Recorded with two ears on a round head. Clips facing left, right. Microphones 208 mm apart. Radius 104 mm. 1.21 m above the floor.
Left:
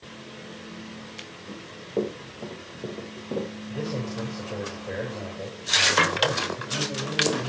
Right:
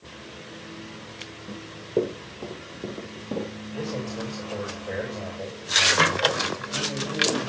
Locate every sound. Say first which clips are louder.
1.5 s running footsteps: right 5 dB; 30° right (ahead or behind), 5.5 m; by 3.5 s 5° left (ahead or behind), 5.5 m
3.7 s a man speaking: even; centre (ahead or behind), 8.5 m